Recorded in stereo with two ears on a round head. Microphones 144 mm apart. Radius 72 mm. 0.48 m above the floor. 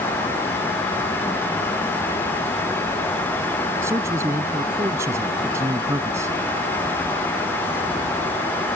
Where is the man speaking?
20° right (ahead or behind).